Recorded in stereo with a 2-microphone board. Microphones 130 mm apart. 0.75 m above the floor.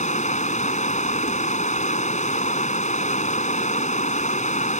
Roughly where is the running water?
Left.